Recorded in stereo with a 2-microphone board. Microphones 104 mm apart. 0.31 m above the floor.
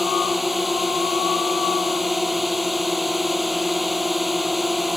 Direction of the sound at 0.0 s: Centre (ahead or behind).